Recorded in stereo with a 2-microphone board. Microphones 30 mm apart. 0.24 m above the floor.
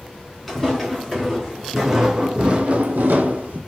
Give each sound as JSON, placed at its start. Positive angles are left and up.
{"t": 0.5, "sound": "footsteps", "side_deg": 0, "distance_m": 1.9}